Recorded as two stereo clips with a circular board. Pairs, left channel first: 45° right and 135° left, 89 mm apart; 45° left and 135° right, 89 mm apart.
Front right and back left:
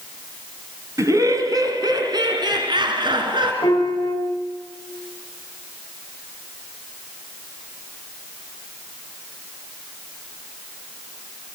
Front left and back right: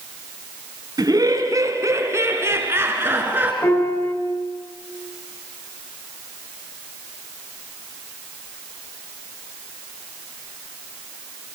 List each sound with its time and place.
1.0 s laughter: 175° right, 2.5 m; by 3.5 s 155° left, 3.5 m
3.6 s a piano: 10° right, 2.5 m